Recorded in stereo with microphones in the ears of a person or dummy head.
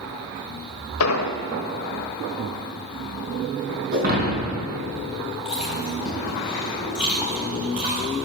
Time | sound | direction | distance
1.0 | an explosion | 75° left (ahead or behind) | 1.0 m
3.9 | breaking glass | 55° right (ahead or behind) | 4 m
5.5 | chewing | 10° right (ahead or behind) | 4.5 m